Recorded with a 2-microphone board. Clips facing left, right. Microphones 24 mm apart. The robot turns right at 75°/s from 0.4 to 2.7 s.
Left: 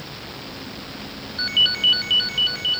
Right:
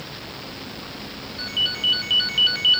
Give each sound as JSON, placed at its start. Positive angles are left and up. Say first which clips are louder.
{"t": 1.4, "sound": "a ringtone", "louder": "left 5 dB", "azimuth_deg": 120, "distance_m": 0.5}